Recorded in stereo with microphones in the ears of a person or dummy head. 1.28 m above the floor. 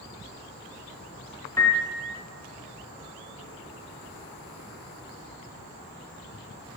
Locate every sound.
1.6 s a piano: 10° left (ahead or behind), 1.1 m